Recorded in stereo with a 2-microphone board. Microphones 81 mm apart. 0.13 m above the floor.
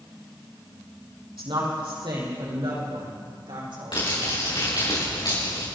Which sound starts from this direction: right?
A woman speaking, at 1.4 s.